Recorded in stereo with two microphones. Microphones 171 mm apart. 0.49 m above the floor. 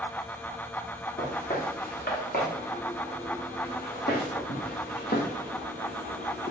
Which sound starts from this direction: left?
Footsteps, at 1.2 s.